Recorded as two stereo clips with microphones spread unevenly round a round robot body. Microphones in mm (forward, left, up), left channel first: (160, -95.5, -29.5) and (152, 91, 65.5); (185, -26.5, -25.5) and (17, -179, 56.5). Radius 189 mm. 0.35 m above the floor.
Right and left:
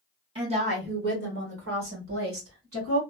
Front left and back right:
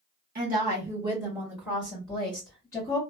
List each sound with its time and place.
0.3 s a woman speaking: 170° right, 0.9 m; by 3.0 s 105° left, 1.8 m